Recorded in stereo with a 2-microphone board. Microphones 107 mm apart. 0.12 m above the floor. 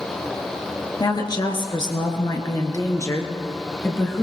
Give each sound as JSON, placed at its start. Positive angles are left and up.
{"t": 1.0, "sound": "a woman speaking", "side_deg": 40, "distance_m": 2.5}